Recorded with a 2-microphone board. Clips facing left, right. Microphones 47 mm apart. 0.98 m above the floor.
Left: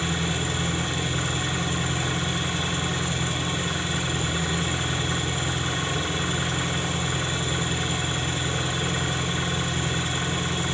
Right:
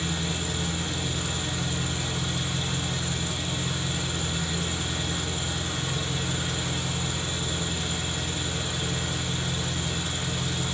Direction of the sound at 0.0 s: 40° left (ahead or behind).